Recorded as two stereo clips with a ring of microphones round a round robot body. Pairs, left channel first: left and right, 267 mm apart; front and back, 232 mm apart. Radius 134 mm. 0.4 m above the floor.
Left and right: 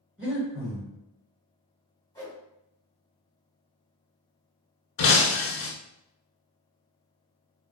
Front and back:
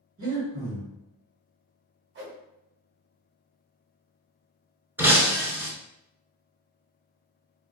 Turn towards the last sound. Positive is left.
turn(degrees=100)